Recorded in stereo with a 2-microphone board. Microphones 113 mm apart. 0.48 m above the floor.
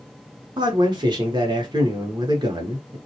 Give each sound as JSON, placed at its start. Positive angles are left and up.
{"t": 0.6, "sound": "a man speaking", "side_deg": -40, "distance_m": 0.8}